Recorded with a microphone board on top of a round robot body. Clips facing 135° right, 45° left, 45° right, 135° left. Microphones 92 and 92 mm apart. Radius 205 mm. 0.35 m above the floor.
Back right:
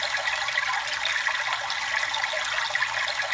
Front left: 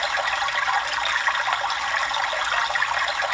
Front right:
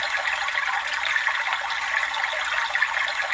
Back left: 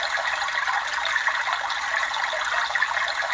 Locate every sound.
0.0 s running water: 70° left, 1.1 m